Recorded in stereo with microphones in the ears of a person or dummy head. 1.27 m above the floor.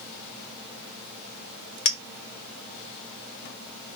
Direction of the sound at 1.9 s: 30° left (ahead or behind).